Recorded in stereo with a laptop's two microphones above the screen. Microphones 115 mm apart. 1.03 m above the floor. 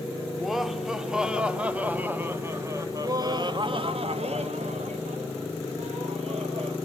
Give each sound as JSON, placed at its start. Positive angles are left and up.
{"t": 0.3, "sound": "laughter", "side_deg": 0, "distance_m": 2.5}